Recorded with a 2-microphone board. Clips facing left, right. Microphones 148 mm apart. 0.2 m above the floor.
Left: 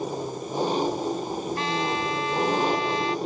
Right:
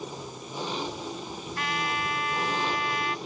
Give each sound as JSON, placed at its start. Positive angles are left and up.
{"t": 0.0, "sound": "an engine running", "side_deg": 45}
{"t": 1.6, "sound": "a trumpet", "side_deg": 30}